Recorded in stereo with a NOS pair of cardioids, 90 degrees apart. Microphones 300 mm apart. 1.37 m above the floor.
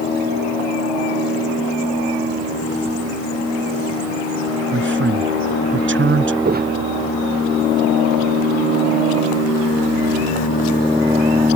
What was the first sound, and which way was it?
A man speaking, 40° right.